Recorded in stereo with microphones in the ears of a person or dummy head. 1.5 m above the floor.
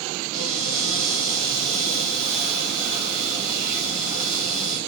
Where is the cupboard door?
Centre (ahead or behind), 2 m.